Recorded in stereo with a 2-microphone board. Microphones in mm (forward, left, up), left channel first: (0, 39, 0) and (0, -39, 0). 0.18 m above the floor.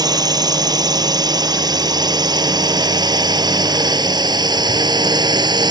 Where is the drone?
60° right (ahead or behind); by 5.7 s 65° right (ahead or behind).